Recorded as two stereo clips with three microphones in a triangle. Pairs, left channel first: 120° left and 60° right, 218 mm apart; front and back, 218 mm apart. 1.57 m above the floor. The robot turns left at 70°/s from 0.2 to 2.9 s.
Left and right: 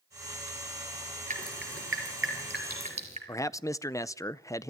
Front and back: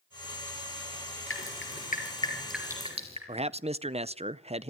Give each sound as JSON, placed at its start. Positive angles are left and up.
{"t": 1.3, "sound": "dripping", "azimuth_deg": -5, "distance_m": 5.0}
{"t": 3.3, "sound": "a man speaking", "azimuth_deg": 175, "distance_m": 0.5}